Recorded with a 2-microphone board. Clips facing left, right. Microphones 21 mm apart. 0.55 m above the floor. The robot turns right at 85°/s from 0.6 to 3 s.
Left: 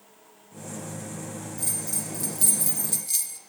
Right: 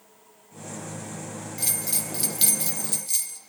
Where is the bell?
120° right, 0.5 m; by 3.4 s straight ahead, 0.5 m.